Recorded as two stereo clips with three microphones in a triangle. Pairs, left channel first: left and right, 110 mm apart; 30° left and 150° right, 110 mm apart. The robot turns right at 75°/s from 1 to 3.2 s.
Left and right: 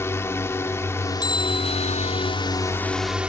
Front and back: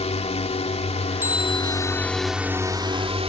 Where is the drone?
25° left; by 3.3 s 170° right.